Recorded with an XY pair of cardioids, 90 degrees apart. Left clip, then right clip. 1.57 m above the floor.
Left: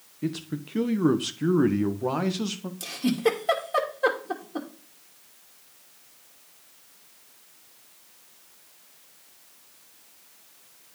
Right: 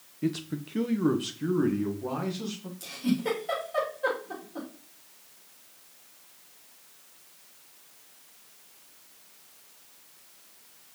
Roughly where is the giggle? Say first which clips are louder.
Left 6 dB; left.